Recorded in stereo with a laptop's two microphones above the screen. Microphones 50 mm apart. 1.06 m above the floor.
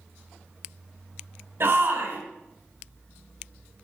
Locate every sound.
1.6 s a shout: 55° right (ahead or behind), 4 m